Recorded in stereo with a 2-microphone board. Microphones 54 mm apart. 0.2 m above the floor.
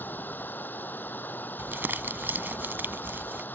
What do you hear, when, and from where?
0.0 s running water: 35° left (ahead or behind)
1.6 s crumpling: 40° right (ahead or behind)